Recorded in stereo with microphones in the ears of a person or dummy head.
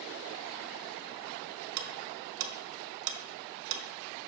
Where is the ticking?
70° right (ahead or behind), 0.8 m.